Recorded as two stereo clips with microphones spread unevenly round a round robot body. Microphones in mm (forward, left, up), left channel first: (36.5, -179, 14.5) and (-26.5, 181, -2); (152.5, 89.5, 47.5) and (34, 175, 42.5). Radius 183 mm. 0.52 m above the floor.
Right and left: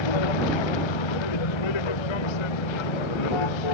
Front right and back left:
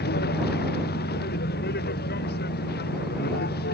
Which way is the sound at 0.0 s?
65° right.